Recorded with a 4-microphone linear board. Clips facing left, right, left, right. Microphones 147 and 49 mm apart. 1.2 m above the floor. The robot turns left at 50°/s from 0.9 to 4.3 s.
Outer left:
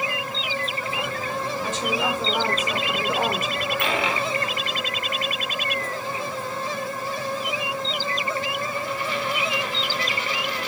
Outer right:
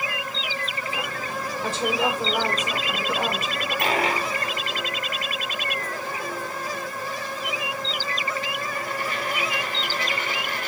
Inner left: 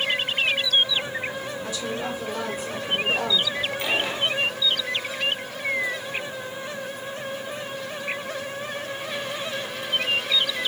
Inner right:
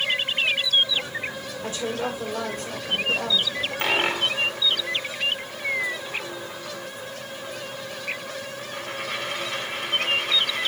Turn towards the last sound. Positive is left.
turn(degrees=-50)  # may be behind; listen again after turning